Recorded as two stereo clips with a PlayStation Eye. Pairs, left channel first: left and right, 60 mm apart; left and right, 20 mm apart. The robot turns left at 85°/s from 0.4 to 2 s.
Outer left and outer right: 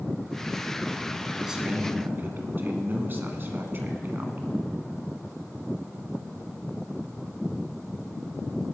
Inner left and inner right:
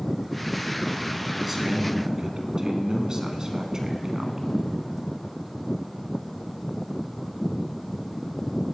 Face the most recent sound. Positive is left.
turn(degrees=-60)